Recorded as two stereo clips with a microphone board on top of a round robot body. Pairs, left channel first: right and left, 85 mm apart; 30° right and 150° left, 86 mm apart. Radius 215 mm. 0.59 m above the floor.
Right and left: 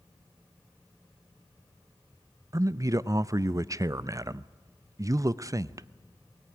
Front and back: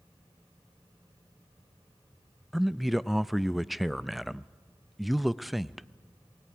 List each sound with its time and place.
2.5 s a man speaking: 60° left, 0.6 m